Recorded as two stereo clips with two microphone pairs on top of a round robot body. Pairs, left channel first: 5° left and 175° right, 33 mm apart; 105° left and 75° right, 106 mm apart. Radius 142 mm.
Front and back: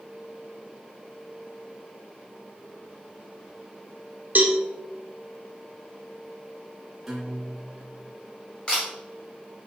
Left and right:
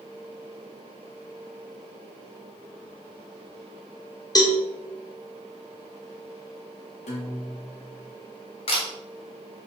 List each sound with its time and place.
4.3 s a cowbell: 155° left, 1.5 m
7.1 s a guitar: 100° left, 1.8 m
8.7 s a camera shutter: 70° left, 1.9 m